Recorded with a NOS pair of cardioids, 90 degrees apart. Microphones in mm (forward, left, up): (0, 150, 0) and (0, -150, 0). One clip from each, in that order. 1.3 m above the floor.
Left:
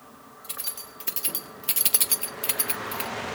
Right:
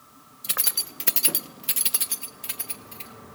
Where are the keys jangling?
60° right, 1.2 m; by 3.1 s 60° left, 1.4 m.